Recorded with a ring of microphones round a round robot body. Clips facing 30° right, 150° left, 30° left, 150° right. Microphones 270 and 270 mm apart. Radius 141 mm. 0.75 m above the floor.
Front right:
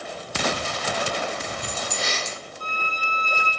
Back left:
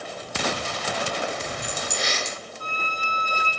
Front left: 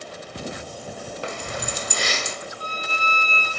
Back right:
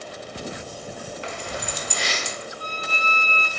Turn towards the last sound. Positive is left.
turn(degrees=25)